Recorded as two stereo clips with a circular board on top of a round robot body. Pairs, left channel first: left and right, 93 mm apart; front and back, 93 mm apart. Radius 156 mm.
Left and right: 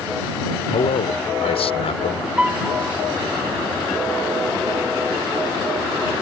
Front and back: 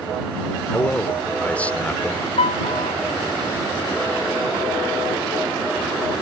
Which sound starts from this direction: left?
A man speaking, at 0.7 s.